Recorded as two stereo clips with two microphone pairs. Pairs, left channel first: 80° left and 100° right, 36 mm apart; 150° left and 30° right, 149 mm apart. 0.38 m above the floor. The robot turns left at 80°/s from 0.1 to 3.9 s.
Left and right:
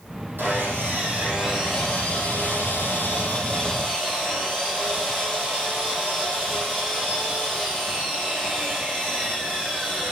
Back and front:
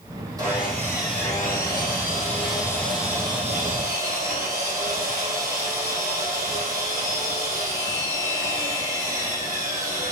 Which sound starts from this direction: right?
Sawing, at 0.4 s.